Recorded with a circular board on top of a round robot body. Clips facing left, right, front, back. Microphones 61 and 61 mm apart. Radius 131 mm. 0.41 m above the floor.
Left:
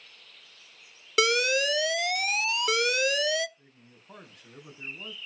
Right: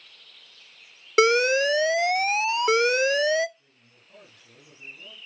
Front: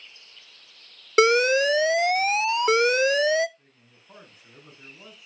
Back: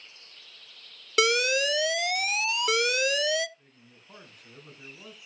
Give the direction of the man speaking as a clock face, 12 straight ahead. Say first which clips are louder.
Left 3 dB, back 2 dB; 9 o'clock.